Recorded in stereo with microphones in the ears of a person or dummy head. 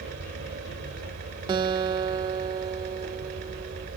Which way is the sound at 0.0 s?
65° right (ahead or behind).